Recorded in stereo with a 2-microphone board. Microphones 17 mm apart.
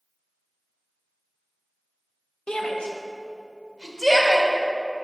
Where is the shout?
65° left (ahead or behind), 1.2 m; by 4.5 s 30° left (ahead or behind), 1.8 m.